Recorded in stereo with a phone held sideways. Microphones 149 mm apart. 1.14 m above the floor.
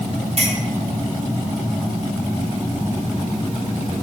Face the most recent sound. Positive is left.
turn(degrees=-50)  # may be behind; listen again after turning